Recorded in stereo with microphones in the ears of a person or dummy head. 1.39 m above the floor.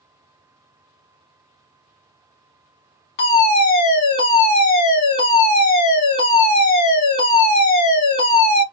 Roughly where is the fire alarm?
Left.